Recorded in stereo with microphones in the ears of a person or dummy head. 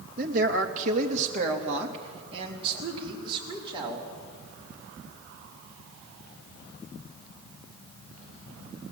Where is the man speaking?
50° right (ahead or behind), 2.5 m; by 4.1 s 25° right (ahead or behind), 5 m.